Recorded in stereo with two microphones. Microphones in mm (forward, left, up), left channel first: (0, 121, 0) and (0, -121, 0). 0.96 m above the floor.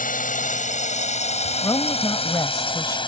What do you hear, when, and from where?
0.0 s a drone: 35° left (ahead or behind); by 3.1 s 20° left (ahead or behind)
1.6 s a woman speaking: 15° left (ahead or behind)